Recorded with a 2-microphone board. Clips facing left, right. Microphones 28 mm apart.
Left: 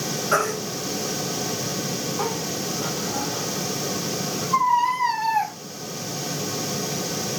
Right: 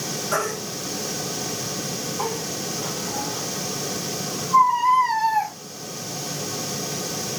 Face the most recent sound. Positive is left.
turn(degrees=30)  # may be behind; listen again after turning